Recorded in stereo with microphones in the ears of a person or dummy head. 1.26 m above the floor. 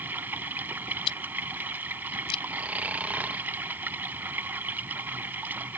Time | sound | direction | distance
0.0 | running water | 10° right (ahead or behind) | ?
1.1 | chewing | 30° left (ahead or behind) | ?
2.5 | snoring | 5° right (ahead or behind) | ?